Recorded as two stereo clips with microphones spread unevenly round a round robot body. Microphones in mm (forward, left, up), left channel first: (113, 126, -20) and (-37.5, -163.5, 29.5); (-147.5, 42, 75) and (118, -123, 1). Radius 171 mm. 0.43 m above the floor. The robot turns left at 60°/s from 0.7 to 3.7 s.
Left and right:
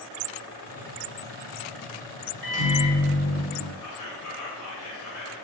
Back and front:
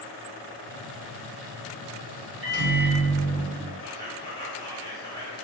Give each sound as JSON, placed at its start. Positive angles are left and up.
{"t": 2.4, "sound": "a microwave", "azimuth_deg": -45, "distance_m": 1.0}
{"t": 3.8, "sound": "whispering", "azimuth_deg": 65, "distance_m": 1.5}